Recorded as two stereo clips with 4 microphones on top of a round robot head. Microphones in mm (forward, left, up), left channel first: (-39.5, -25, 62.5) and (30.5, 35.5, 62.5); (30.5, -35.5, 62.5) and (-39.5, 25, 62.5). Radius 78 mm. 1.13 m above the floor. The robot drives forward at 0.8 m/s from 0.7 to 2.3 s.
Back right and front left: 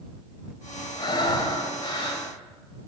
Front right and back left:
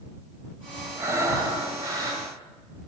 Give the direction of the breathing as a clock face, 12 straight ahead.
6 o'clock.